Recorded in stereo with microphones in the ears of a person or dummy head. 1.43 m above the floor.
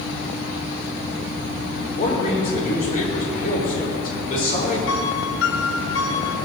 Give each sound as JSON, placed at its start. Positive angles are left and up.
{"t": 1.9, "sound": "a man speaking", "side_deg": 40, "distance_m": 4.5}
{"t": 4.9, "sound": "a piano", "side_deg": 60, "distance_m": 1.9}